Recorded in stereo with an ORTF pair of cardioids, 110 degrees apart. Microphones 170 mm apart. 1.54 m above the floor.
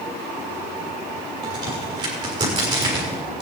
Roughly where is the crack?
Ahead right.